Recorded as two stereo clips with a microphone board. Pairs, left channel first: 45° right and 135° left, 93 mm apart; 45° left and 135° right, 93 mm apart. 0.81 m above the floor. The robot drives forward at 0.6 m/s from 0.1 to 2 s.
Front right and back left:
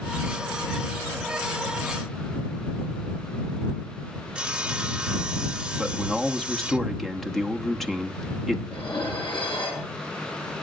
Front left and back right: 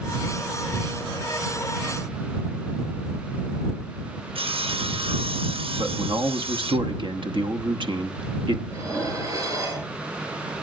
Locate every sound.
4.3 s sawing: 145° right, 0.8 m
5.8 s a man speaking: 130° right, 1.1 m
8.7 s dishes clattering: 80° right, 8.5 m